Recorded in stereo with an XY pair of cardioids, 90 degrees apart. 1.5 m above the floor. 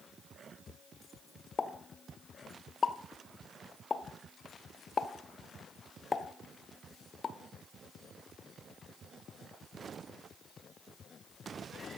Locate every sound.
1.6 s a pop: 40° left, 0.6 m